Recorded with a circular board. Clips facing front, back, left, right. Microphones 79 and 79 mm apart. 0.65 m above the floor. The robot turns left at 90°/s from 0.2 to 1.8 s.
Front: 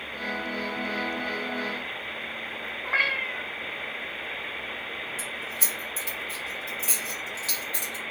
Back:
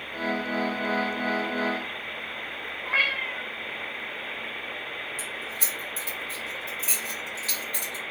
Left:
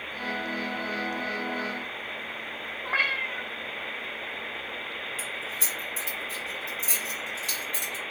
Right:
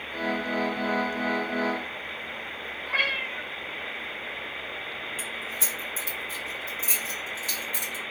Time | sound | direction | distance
2.9 | a cat meowing | 65° left | 0.6 m
5.2 | keys jangling | 65° left | 1.4 m